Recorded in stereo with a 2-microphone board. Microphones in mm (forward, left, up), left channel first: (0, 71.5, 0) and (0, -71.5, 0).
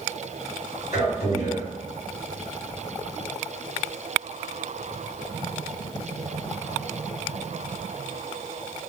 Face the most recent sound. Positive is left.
turn(degrees=-25)  # may be behind; listen again after turning